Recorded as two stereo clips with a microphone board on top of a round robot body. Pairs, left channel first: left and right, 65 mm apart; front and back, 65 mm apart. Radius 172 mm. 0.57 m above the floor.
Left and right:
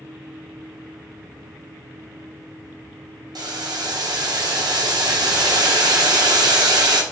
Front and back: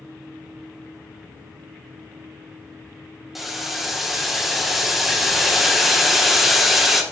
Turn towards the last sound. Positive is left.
turn(degrees=-95)